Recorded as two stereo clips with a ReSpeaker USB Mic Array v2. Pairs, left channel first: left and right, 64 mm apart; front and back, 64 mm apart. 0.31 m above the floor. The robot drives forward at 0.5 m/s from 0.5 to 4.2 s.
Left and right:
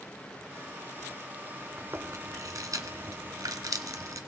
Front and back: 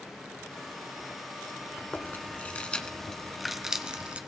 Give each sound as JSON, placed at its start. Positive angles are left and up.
{"t": 1.8, "sound": "chewing", "azimuth_deg": -50, "distance_m": 1.3}